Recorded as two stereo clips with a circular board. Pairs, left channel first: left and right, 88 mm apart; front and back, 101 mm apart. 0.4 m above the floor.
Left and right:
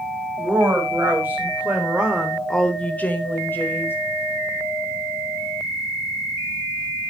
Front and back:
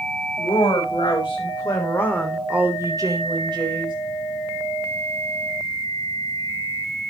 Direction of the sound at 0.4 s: 30° right.